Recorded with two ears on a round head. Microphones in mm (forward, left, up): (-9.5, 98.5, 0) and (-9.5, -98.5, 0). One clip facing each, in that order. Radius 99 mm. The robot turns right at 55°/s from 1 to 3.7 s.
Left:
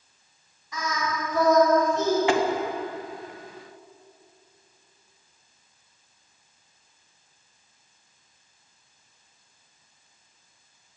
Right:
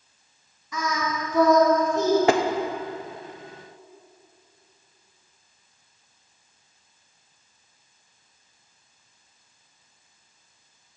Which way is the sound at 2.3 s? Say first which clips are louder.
Right 2 dB; 35° right (ahead or behind).